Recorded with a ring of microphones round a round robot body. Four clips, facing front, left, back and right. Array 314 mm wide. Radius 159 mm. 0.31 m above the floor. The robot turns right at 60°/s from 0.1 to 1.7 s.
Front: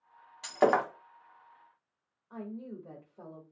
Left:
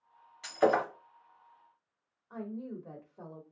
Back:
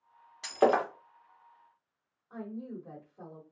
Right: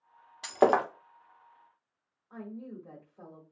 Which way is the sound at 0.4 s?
95° right.